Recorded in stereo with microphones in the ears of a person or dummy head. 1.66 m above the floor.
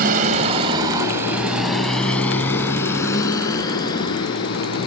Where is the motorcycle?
45° right (ahead or behind); by 4.9 s 35° left (ahead or behind).